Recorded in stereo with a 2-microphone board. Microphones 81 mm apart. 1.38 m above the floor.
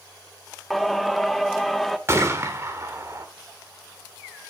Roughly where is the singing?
Centre.